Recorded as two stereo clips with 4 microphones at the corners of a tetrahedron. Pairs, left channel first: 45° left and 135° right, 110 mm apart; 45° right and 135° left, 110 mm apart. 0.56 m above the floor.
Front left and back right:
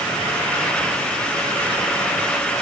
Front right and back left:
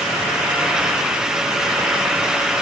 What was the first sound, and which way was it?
Only background noise.